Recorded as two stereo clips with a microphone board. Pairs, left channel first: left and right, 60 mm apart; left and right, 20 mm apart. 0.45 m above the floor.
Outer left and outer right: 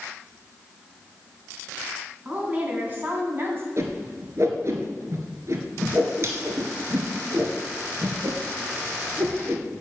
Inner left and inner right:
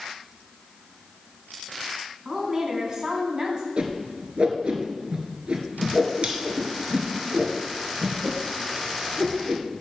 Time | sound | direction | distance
2.2 | a woman speaking | 30° right (ahead or behind) | 3.5 m
3.8 | a whoosh | 50° right (ahead or behind) | 1.7 m